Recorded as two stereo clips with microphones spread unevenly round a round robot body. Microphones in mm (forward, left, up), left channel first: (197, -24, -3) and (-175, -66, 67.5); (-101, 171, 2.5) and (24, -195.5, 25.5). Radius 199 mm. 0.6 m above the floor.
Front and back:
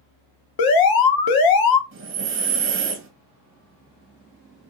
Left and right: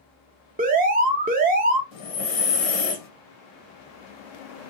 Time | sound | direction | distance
0.6 | an alarm | straight ahead | 0.8 m
1.9 | breathing | 125° left | 1.2 m